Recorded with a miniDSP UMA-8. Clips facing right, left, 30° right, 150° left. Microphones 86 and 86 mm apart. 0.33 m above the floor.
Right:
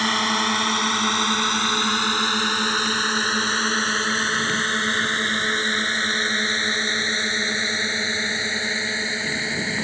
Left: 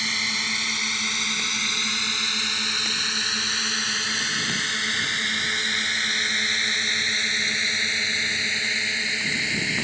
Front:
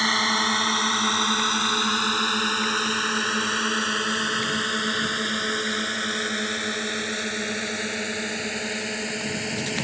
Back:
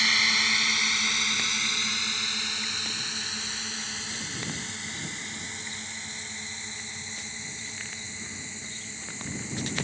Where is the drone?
70° right; by 9.8 s 30° right.